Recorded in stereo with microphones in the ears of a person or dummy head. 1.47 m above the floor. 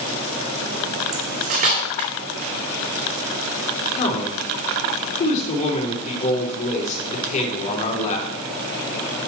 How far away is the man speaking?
About 3.5 m.